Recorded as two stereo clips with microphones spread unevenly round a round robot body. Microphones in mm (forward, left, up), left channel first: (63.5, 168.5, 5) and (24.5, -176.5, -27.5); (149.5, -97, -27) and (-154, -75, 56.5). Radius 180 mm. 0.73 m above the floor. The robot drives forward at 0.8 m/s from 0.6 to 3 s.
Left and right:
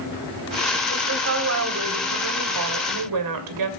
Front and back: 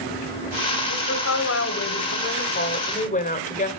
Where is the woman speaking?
40° right, 3.5 m; by 3.7 s 65° right, 2.5 m.